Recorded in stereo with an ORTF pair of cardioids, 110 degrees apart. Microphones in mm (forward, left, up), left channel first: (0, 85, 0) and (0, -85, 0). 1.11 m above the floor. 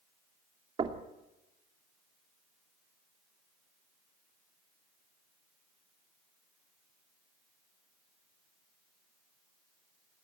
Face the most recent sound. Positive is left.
turn(degrees=-30)